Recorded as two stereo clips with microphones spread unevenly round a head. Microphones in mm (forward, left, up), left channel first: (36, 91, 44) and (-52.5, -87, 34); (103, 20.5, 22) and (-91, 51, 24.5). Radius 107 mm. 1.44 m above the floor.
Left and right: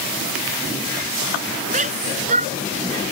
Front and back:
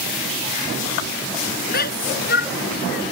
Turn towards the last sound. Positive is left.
turn(degrees=-55)